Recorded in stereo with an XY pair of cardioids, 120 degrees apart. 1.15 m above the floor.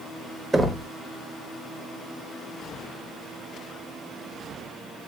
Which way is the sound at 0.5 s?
10° right.